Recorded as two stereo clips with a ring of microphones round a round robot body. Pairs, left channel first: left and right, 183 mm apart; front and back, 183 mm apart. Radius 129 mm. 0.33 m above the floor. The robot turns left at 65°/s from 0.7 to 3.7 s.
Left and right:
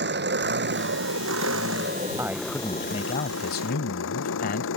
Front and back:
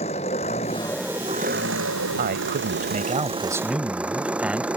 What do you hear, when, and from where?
0.0 s an engine running: 70° right; by 4.8 s 95° left
2.2 s a man speaking: 165° right; by 4.7 s 100° left